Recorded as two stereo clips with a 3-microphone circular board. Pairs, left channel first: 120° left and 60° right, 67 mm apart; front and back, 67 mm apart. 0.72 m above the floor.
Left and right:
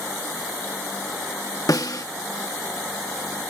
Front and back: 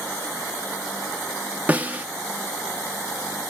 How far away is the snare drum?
About 0.8 m.